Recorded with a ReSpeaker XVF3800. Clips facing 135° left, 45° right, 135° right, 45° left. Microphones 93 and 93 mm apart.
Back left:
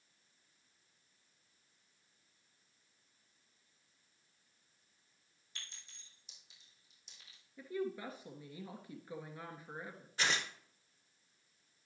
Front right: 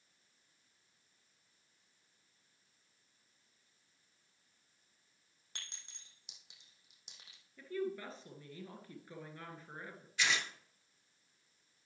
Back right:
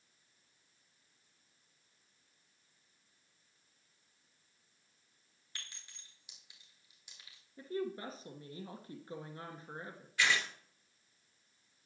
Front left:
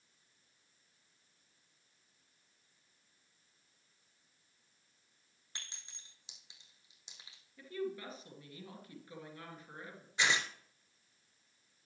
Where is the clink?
25° right, 3 m.